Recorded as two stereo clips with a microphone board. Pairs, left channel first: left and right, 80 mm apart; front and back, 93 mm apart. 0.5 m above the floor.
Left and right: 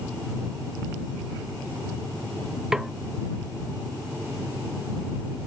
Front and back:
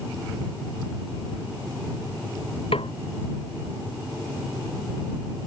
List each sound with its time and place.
2.7 s a snare drum: 5° right